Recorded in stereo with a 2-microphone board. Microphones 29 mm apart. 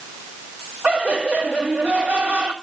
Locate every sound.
0.8 s laughter: 85° right, 4 m